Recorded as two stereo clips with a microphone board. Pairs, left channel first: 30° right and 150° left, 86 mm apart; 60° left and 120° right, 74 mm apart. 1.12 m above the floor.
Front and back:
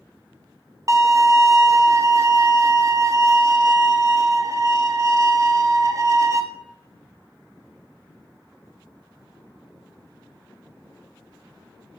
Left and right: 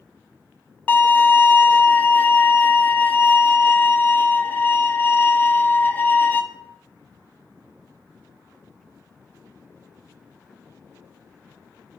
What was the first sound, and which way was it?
A violin, 115° left.